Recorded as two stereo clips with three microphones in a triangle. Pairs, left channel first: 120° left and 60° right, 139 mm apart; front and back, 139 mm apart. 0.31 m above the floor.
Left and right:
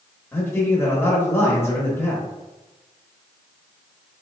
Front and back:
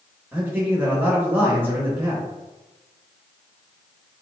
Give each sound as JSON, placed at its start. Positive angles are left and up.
{"t": 0.3, "sound": "a man speaking", "azimuth_deg": 155, "distance_m": 0.9}